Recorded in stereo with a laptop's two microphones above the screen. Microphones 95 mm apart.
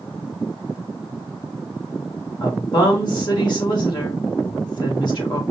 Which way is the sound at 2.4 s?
45° left (ahead or behind).